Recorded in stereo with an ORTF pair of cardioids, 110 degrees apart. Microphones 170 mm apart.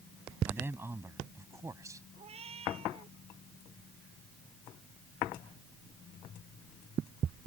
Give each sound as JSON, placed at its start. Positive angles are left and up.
{"t": 0.5, "sound": "a man speaking", "azimuth_deg": -10}
{"t": 2.2, "sound": "a cat meowing", "azimuth_deg": -35}